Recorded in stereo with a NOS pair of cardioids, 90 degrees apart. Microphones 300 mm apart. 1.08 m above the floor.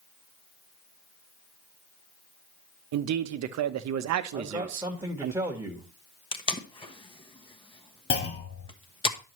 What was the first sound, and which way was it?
A man speaking, 65° right.